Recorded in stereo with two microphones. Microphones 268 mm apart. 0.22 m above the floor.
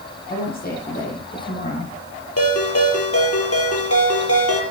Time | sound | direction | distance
0.3 | a woman speaking | 35° left (ahead or behind) | 9 m
2.4 | a ringtone | 60° left (ahead or behind) | 4 m